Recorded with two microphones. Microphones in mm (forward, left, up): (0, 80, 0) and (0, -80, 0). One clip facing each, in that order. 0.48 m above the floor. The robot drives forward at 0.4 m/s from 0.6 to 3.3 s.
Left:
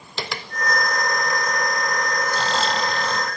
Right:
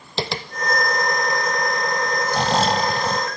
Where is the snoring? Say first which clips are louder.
Right 7 dB; 65° right (ahead or behind), 0.5 m; by 3.3 s 35° right (ahead or behind), 0.8 m.